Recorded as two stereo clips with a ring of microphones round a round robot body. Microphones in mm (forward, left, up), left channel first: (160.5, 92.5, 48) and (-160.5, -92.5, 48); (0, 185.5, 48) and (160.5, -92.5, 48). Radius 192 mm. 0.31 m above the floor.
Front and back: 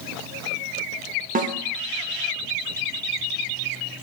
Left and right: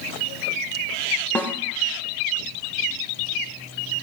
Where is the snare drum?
165° right, 0.6 m.